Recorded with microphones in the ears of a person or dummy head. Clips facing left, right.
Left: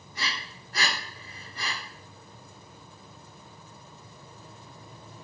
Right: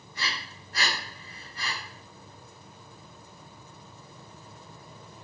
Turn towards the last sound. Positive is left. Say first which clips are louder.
# left 1 dB
turn(degrees=65)  # may be behind; listen again after turning